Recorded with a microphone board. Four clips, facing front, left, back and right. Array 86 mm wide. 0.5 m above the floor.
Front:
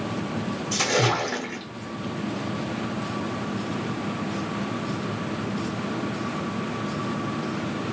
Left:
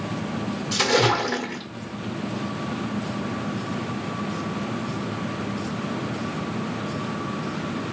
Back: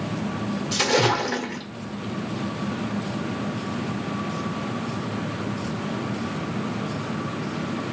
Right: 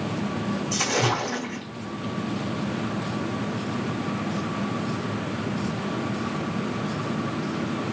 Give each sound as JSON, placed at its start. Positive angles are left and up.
{"t": 0.7, "sound": "a splash", "azimuth_deg": 135, "distance_m": 1.6}